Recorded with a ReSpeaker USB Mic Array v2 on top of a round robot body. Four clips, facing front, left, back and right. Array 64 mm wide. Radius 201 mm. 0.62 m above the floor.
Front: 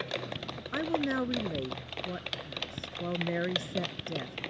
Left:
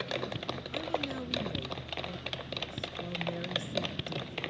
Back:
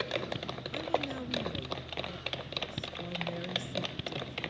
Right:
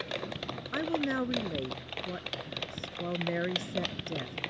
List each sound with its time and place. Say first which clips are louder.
0.7 s a woman speaking: right 6 dB, front 4 dB; 35° right